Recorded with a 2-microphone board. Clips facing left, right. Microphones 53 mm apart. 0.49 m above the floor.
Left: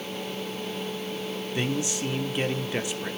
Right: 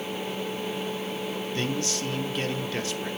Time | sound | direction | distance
1.6 | a man speaking | 15° left (ahead or behind) | 0.9 m